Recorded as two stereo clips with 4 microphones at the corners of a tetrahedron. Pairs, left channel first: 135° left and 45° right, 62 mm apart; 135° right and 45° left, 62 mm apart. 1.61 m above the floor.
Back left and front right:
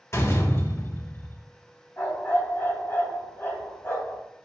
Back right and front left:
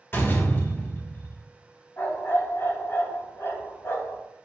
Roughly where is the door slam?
Behind.